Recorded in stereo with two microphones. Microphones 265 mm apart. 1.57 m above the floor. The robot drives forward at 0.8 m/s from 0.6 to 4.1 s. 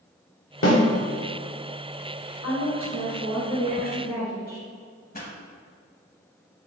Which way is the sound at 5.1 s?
35° left (ahead or behind).